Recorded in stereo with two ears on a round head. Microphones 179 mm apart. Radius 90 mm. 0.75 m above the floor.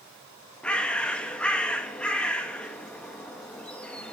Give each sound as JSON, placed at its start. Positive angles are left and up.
{"t": 0.6, "sound": "a bird", "side_deg": 5, "distance_m": 1.0}